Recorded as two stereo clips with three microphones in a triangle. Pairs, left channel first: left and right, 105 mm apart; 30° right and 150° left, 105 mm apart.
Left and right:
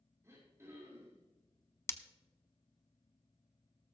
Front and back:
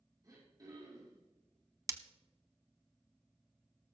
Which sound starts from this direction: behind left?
Breaking glass, at 1.9 s.